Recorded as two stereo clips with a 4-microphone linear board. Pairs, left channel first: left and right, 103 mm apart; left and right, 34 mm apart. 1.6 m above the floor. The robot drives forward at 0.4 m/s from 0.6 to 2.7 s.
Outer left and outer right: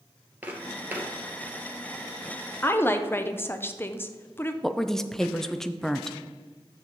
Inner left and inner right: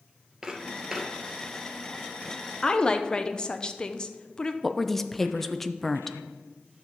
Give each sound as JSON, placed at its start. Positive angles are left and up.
{"t": 0.4, "sound": "footsteps", "side_deg": -15, "distance_m": 1.8}
{"t": 2.6, "sound": "a woman speaking", "side_deg": 20, "distance_m": 0.6}
{"t": 4.6, "sound": "a woman speaking", "side_deg": 5, "distance_m": 0.5}